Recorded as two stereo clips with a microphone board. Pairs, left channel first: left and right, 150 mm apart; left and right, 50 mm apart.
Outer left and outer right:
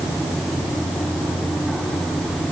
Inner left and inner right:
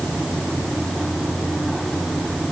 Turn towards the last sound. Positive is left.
No sound to turn to.